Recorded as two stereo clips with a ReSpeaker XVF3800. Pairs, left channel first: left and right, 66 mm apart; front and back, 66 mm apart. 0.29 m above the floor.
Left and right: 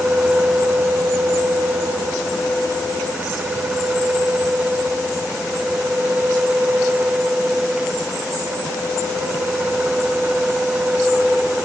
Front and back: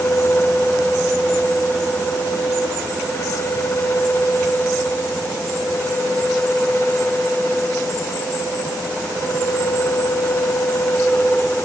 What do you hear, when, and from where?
Only background noise.